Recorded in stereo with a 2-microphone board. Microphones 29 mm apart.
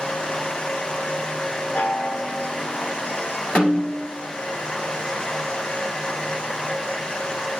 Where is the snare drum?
55° left (ahead or behind), 2.5 m.